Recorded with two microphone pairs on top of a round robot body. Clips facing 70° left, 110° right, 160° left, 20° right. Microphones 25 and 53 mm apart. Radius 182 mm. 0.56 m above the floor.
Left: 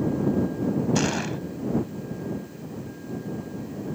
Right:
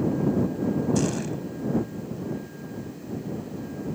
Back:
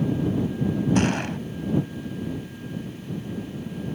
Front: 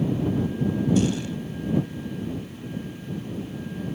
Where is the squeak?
I don't hear a squeak.